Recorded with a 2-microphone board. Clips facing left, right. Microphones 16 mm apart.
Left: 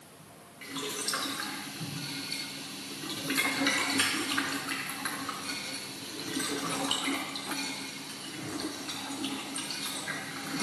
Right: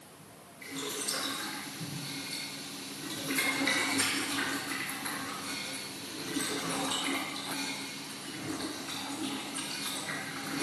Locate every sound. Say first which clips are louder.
0.6 s boiling: left 2 dB; 65° left (ahead or behind), 4.5 m